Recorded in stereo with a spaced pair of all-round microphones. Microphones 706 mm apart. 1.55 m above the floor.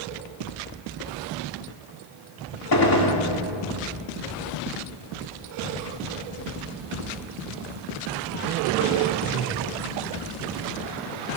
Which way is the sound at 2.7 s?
30° left (ahead or behind).